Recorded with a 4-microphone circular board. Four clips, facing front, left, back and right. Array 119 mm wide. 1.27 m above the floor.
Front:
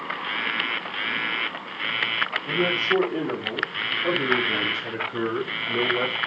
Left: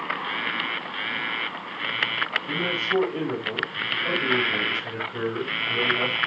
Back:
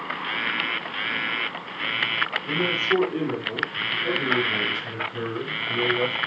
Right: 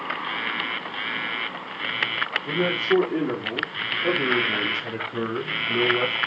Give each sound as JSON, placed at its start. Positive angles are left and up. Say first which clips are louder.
{"t": 2.5, "sound": "a man speaking", "louder": "right 7 dB, front 1 dB", "azimuth_deg": -85, "distance_m": 2.5}